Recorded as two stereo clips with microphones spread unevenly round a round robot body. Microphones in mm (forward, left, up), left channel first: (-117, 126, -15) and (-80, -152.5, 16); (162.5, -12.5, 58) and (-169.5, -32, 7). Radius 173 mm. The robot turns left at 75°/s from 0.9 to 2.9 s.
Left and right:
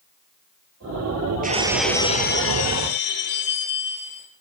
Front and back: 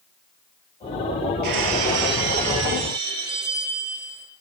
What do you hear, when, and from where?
1.4 s breaking glass: 145° right, 4.5 m; by 4.3 s 105° left, 4.5 m